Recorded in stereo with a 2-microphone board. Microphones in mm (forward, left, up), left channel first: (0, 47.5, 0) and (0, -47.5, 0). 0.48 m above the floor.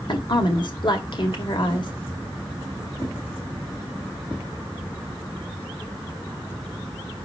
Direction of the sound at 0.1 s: 55° left (ahead or behind).